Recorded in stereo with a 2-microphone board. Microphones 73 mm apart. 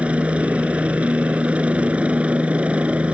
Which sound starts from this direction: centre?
A helicopter, at 0.0 s.